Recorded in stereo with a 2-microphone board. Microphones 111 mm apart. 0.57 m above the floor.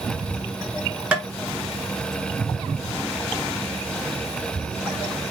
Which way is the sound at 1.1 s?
5° right (ahead or behind).